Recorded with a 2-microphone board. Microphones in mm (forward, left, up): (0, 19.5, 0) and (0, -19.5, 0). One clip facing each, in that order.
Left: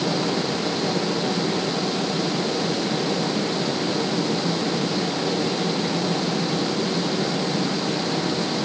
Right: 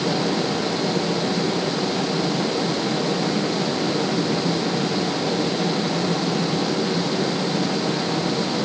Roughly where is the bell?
I don't hear a bell.